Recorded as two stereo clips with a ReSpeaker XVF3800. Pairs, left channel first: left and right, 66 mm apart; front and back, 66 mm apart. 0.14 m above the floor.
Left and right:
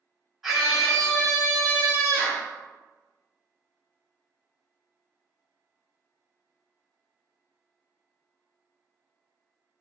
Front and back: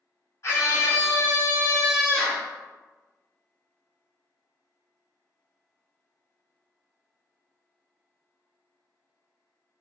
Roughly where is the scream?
Ahead.